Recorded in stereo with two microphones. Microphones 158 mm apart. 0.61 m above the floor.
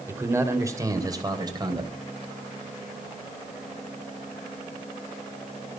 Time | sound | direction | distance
0.1 | a man speaking | 15° right (ahead or behind) | 2.5 m